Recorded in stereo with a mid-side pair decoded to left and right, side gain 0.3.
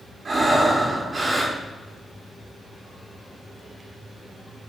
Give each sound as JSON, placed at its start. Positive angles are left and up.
{"t": 0.2, "sound": "breathing", "azimuth_deg": -50, "distance_m": 2.0}